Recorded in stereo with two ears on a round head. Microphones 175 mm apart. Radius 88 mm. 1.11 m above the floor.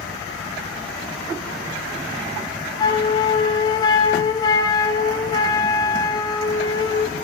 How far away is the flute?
About 5.5 m.